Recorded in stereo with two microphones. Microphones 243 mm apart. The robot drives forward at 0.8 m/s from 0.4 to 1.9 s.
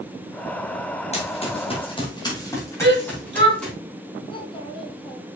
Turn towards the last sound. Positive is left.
turn(degrees=20)  # may be behind; listen again after turning